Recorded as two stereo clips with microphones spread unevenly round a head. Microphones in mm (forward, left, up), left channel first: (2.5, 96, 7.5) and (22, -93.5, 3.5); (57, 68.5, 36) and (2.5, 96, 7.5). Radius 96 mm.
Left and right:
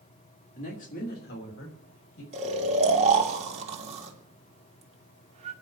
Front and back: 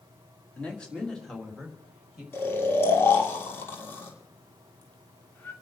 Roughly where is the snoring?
Ahead right.